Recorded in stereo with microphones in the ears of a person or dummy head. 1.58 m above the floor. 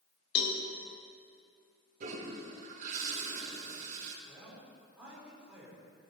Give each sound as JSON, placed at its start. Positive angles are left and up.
{"t": 0.3, "sound": "a cowbell", "side_deg": 65, "distance_m": 1.8}
{"t": 2.0, "sound": "a toilet flushing", "side_deg": -50, "distance_m": 2.0}
{"t": 4.2, "sound": "a man speaking", "side_deg": -10, "distance_m": 4.5}